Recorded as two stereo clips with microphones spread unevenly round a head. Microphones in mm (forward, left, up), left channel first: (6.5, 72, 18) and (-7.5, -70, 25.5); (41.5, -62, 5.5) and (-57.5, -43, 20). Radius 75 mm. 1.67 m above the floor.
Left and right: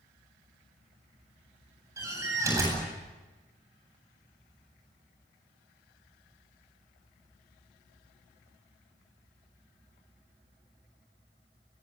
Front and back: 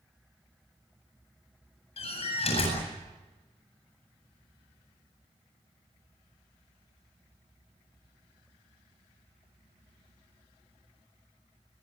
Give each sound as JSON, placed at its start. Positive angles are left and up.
{"t": 2.0, "sound": "a door slam", "azimuth_deg": -25, "distance_m": 8.5}